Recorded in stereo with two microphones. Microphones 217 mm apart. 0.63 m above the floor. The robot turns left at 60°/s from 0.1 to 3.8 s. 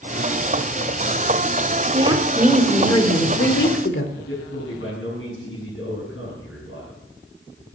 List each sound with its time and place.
1.9 s a woman speaking: 145° right, 1.5 m; by 4.0 s 100° left, 1.5 m
4.2 s a man speaking: 75° left (ahead or behind), 7 m